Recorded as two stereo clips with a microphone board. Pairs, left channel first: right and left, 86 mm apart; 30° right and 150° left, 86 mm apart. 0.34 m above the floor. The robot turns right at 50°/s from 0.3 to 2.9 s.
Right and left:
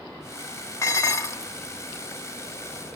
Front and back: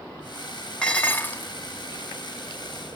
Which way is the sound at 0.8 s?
100° right.